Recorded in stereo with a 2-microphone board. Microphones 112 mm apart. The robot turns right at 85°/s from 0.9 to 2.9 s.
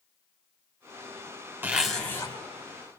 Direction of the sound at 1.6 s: 20° right.